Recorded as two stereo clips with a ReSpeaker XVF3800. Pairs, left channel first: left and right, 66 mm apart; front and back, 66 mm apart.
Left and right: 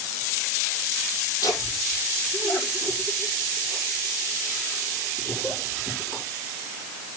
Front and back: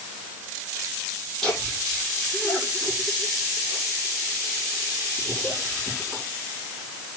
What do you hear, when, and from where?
1.4 s laughter: 85° left, 7 m